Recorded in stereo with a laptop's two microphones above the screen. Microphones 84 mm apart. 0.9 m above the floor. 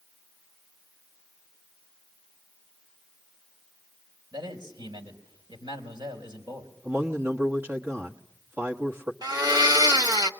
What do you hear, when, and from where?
4.3 s a man speaking: 60° right (ahead or behind), 3.5 m
6.8 s a man speaking: 30° right (ahead or behind), 1.3 m
9.2 s a blender: 50° right (ahead or behind), 1.4 m